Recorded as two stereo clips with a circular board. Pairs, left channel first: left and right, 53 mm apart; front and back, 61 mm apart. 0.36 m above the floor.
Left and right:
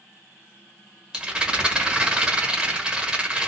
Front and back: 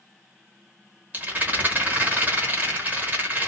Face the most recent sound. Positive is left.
turn(degrees=-160)